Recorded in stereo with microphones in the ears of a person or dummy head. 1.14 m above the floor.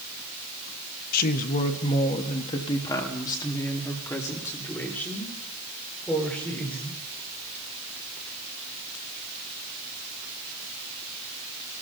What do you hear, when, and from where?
1.1 s a woman speaking: 50° left (ahead or behind), 1.1 m; by 7.0 s 5° left (ahead or behind), 3.5 m